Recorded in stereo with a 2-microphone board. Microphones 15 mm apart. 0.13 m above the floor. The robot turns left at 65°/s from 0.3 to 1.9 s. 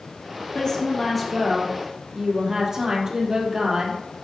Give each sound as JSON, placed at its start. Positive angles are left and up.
{"t": 0.5, "sound": "a woman speaking", "azimuth_deg": 45, "distance_m": 4.0}